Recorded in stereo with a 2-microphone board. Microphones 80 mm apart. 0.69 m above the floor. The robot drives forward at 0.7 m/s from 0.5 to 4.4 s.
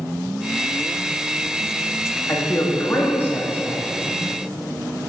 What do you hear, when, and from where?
2.3 s a man speaking: 35° left (ahead or behind), 1.3 m; by 4.2 s 20° left (ahead or behind), 2.0 m